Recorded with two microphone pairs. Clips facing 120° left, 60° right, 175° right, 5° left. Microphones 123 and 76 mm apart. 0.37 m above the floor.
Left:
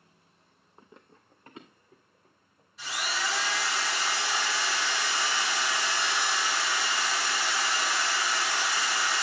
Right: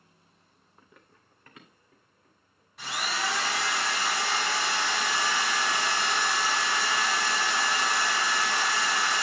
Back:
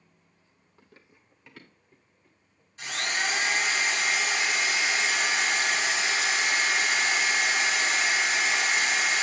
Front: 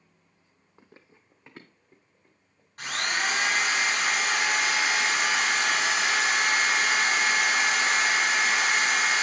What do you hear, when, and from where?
0.8 s running footsteps: 60° left, 0.7 m
2.8 s a drill: 30° right, 2 m